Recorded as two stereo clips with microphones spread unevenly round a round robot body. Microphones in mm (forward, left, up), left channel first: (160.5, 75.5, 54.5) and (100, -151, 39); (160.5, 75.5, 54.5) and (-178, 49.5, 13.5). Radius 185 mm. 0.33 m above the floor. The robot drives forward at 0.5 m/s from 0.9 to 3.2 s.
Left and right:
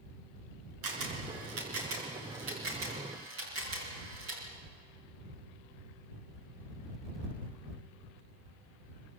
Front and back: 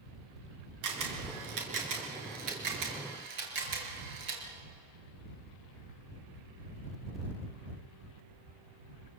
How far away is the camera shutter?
About 4 m.